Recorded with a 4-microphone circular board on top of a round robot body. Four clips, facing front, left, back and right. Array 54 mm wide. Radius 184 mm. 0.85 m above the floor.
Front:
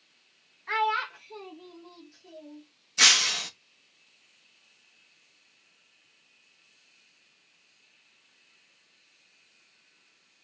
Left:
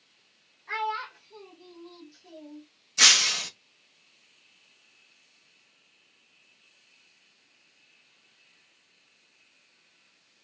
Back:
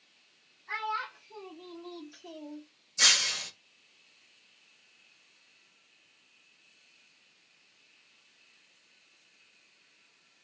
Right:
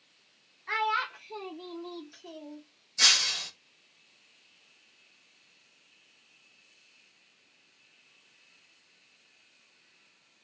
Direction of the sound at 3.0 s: 30° left.